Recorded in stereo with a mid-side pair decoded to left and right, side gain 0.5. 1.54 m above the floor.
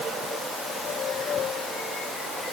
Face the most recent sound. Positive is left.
No sound to turn to.